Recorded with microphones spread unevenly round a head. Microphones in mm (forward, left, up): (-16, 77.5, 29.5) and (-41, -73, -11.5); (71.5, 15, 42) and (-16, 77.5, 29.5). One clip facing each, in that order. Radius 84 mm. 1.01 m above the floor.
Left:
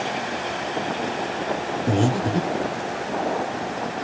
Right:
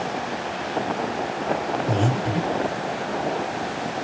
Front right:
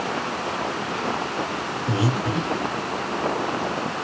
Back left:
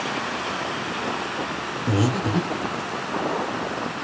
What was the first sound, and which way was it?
Breathing, 95° left.